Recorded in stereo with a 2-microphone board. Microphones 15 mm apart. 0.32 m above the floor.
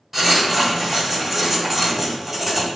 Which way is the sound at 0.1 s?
10° right (ahead or behind).